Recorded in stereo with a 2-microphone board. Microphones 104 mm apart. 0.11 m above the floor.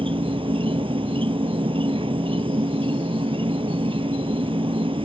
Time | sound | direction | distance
0.0 | an insect | 60° right (ahead or behind) | ?